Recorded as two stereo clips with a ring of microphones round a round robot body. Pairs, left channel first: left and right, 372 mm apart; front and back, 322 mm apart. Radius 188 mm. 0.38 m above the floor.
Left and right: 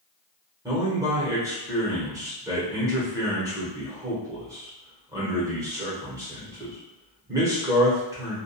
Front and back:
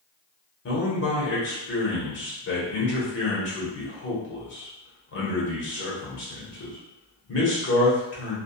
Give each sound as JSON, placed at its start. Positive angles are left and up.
{"t": 0.7, "sound": "a man speaking", "azimuth_deg": -15, "distance_m": 1.0}